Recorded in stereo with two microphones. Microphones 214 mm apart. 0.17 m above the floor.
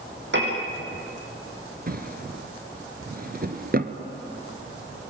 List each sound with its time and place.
0.3 s a piano: 55° right (ahead or behind), 6 m
1.9 s a drawer: 45° right (ahead or behind), 1.2 m